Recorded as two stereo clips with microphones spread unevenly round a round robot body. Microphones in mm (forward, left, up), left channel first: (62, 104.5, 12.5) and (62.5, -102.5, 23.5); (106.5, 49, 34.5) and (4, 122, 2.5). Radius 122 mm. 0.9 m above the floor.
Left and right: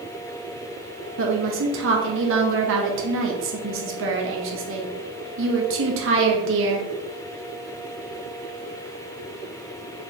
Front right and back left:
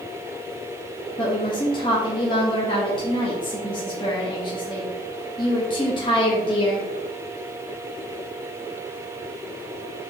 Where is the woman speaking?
105° right, 1.0 m.